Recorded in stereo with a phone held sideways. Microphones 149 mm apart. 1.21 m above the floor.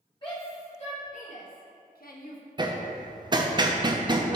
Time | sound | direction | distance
0.2 | a shout | 35° left (ahead or behind) | 2 m
2.6 | hammering | 30° right (ahead or behind) | 0.5 m